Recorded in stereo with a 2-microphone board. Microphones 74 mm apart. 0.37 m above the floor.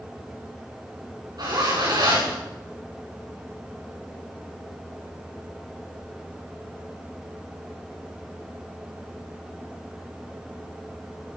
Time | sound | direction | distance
1.4 | a zipper | 60° right (ahead or behind) | 7.5 m